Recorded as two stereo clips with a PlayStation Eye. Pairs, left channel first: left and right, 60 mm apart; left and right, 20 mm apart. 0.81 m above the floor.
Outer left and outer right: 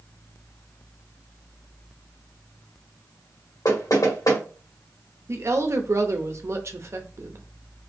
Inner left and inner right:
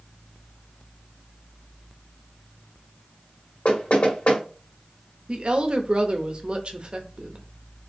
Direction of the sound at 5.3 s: 50° right (ahead or behind).